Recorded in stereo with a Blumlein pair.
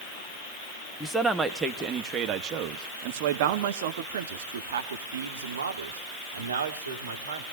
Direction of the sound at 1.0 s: Straight ahead.